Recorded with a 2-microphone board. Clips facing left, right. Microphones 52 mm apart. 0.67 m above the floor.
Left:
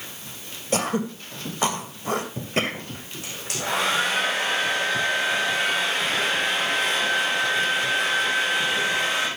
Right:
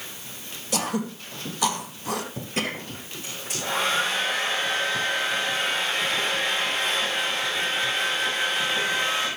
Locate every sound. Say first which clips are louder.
0.7 s throat clearing: left 3 dB; 40° left (ahead or behind), 2 m
3.2 s a hair dryer: left 2 dB; 85° left, 8 m